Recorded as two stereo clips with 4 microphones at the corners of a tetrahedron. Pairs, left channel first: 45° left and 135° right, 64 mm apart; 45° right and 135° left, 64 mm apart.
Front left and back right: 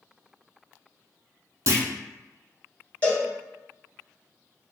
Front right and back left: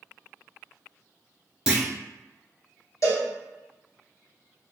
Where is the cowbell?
20° right, 1.2 m.